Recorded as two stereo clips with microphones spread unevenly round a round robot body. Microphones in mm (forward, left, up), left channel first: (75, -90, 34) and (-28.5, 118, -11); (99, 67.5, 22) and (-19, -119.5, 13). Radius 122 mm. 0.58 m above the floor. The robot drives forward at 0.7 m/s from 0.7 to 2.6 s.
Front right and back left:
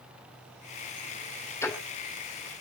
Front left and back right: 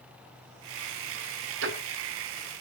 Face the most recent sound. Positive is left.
turn(degrees=-160)